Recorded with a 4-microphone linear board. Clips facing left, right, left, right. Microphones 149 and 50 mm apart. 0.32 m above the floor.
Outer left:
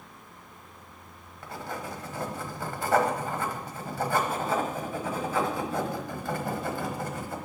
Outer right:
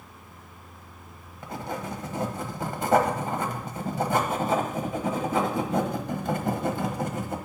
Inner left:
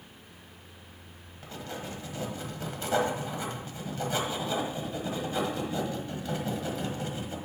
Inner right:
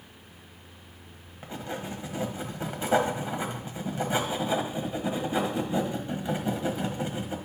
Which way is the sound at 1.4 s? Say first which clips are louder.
Outer right 3 dB, inner right 3 dB; 20° right (ahead or behind).